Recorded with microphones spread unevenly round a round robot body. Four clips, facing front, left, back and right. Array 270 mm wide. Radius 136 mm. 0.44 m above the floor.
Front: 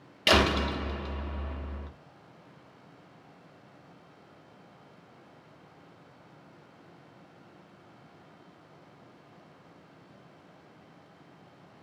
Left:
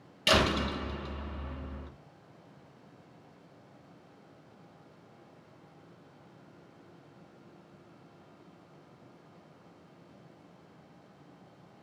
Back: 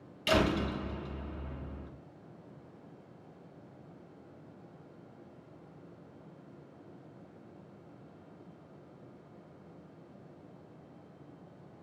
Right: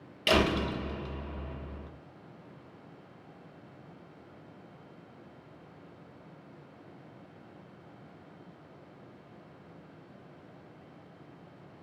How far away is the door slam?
About 1.2 m.